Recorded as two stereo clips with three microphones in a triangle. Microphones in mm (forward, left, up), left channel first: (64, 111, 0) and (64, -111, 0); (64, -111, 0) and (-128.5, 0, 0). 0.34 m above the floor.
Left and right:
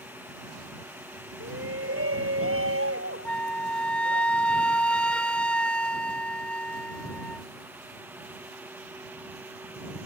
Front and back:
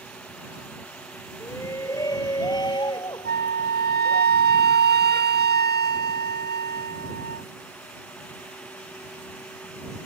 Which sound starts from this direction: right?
A shout, at 1.4 s.